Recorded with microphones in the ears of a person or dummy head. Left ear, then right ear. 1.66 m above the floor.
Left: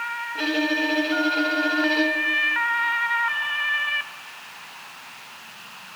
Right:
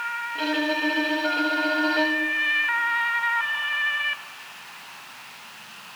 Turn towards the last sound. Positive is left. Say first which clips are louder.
# left 2 dB
turn(degrees=0)  # may be behind; listen again after turning